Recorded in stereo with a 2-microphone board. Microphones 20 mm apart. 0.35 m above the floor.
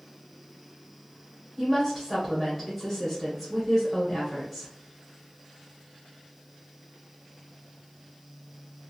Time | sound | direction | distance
1.6 | a woman speaking | 10° left (ahead or behind) | 1.0 m